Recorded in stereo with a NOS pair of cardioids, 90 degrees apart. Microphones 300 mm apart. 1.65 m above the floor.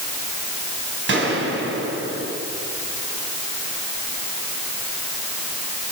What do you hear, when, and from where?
1.1 s a gunshot: 40° right, 7 m